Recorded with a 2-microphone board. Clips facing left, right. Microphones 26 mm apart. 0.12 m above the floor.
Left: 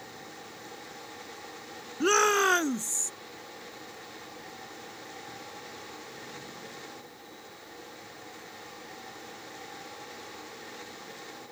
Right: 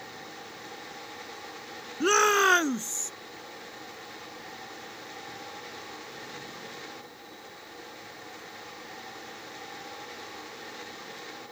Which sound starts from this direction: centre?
A shout, at 2.0 s.